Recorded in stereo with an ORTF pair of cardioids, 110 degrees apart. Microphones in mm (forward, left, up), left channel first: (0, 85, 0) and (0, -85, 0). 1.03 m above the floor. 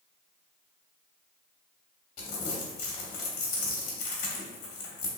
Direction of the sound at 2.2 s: 50° left.